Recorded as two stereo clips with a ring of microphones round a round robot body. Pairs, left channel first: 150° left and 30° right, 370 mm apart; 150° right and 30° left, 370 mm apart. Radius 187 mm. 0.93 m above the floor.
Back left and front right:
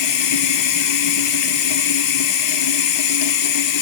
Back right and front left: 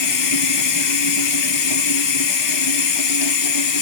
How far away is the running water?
About 1.5 m.